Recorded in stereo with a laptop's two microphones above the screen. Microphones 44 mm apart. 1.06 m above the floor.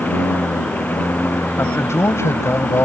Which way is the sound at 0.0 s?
40° left (ahead or behind).